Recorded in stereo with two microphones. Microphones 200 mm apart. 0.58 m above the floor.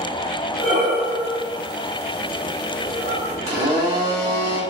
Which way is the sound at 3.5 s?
15° right (ahead or behind).